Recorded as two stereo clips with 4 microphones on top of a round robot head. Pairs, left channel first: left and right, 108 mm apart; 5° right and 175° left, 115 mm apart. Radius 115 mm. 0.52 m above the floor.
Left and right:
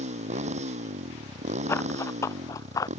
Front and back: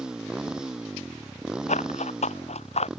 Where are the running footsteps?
15° left; by 2.9 s 25° left.